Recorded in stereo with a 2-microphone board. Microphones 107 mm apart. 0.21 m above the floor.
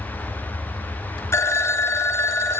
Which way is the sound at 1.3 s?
25° left (ahead or behind).